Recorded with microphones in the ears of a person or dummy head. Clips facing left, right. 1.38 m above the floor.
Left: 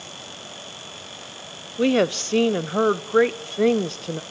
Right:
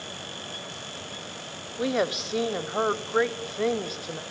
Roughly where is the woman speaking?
Left.